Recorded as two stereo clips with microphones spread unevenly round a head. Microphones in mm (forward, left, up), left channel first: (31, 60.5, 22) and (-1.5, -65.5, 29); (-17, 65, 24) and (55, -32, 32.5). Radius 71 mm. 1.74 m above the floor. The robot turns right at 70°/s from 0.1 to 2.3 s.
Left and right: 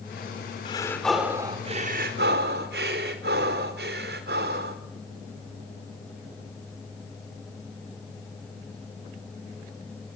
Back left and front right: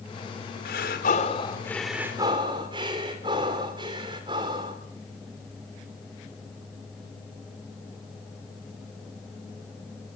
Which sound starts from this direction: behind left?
Breathing, at 0.7 s.